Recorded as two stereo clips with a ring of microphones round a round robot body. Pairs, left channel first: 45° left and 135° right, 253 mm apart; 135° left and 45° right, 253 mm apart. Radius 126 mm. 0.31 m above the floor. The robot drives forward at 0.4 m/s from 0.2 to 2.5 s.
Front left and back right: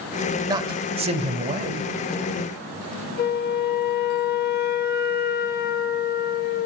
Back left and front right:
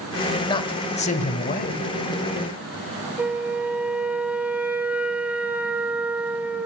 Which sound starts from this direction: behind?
A man speaking, at 0.5 s.